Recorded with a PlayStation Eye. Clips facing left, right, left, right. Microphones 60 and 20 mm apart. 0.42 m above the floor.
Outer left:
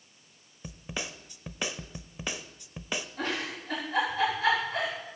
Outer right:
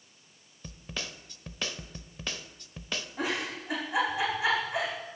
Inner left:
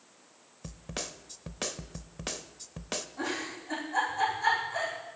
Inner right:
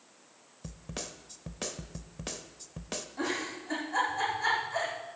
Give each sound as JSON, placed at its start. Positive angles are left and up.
{"t": 0.6, "sound": "a snare drum", "side_deg": 15, "distance_m": 0.5}
{"t": 3.2, "sound": "a giggle", "side_deg": -10, "distance_m": 6.0}